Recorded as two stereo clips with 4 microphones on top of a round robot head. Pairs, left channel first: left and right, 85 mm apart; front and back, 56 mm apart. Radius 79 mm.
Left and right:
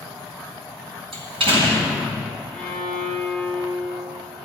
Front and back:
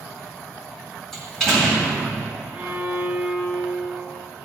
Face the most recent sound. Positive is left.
turn(degrees=-110)